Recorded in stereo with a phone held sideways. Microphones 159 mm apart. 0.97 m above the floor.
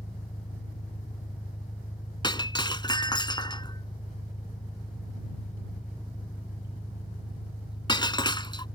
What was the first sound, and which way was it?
An engine running, 50° left (ahead or behind).